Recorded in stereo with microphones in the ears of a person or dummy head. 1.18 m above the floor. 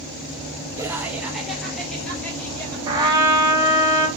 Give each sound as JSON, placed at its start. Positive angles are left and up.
{"t": 0.8, "sound": "laughter", "side_deg": -15, "distance_m": 0.8}
{"t": 2.9, "sound": "a trumpet", "side_deg": -20, "distance_m": 0.7}